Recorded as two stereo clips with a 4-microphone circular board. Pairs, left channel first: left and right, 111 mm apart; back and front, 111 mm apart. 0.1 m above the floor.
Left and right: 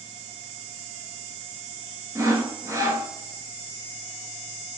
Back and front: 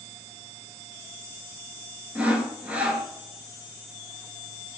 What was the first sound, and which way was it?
Sawing, 70° right.